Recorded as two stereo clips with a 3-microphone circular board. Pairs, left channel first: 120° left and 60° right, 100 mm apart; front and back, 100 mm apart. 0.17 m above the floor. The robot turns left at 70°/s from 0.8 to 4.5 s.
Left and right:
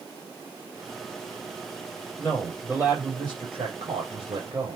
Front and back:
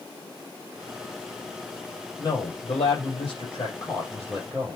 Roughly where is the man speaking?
Ahead left.